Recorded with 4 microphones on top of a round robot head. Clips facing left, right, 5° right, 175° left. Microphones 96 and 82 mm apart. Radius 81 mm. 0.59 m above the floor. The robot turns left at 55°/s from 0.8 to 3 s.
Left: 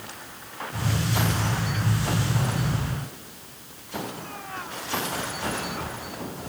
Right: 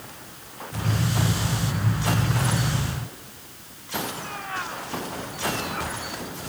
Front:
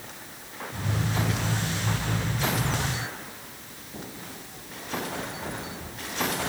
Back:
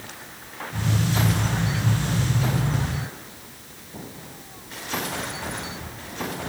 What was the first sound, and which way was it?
Only background noise.